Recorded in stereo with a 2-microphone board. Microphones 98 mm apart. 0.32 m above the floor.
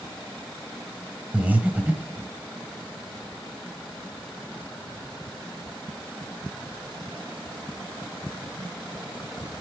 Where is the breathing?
15° right (ahead or behind), 0.9 m.